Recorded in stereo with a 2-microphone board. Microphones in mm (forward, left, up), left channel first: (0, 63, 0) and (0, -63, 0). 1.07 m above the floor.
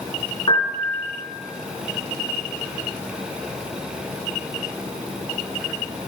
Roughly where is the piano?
Left.